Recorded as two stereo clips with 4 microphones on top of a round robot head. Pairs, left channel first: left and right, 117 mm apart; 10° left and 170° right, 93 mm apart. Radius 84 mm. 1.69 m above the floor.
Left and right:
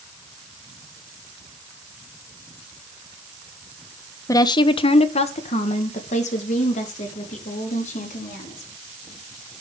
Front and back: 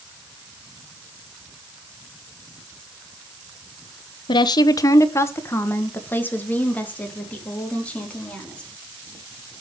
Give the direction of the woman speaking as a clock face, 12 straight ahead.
11 o'clock.